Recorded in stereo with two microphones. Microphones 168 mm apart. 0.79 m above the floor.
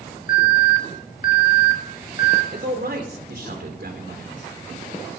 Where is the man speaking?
70° right (ahead or behind), 3 m.